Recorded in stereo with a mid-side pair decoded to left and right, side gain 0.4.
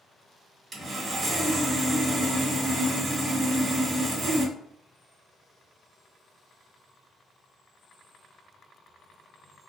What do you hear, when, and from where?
0.7 s sawing: 50° right, 1.3 m